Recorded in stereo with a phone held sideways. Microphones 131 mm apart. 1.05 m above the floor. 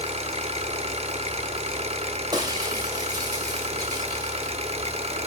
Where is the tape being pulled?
I don't hear tape being pulled.